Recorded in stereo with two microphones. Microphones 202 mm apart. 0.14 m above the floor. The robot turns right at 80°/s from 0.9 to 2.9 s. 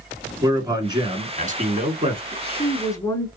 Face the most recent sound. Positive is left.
turn(degrees=150)